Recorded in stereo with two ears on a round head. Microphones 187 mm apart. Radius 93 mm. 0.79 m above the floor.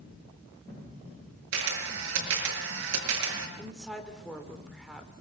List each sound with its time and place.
1.5 s a camera shutter: 65° right (ahead or behind), 6 m
3.6 s a woman speaking: centre (ahead or behind), 3 m